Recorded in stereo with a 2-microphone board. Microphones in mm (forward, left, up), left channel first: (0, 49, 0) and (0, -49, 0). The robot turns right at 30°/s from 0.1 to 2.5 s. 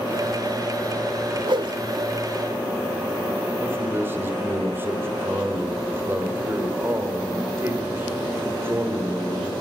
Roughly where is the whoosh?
Right.